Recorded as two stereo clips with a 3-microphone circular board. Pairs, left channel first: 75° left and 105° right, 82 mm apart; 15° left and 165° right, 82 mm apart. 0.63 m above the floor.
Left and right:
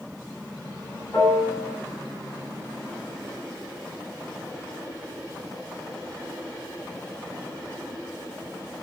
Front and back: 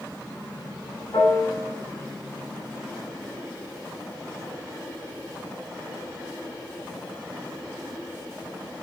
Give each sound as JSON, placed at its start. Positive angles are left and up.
{"t": 1.1, "sound": "a piano", "azimuth_deg": 30, "distance_m": 1.6}